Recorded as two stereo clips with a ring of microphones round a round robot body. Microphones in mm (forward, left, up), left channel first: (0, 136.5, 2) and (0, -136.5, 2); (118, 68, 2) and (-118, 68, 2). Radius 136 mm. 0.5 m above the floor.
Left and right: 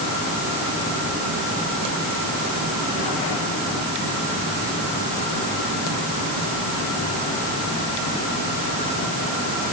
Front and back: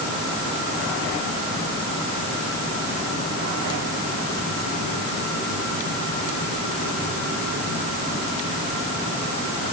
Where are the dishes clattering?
No dishes clattering in this recording.